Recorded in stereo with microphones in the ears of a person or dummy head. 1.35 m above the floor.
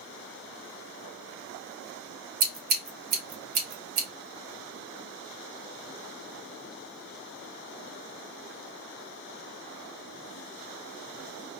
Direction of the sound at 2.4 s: 50° right (ahead or behind).